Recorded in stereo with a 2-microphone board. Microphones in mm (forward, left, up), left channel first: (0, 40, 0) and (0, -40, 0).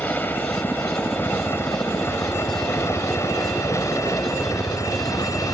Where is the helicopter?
25° left (ahead or behind); by 5.5 s 45° left (ahead or behind).